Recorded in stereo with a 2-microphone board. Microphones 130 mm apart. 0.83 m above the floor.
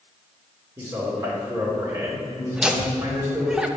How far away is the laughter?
About 0.6 m.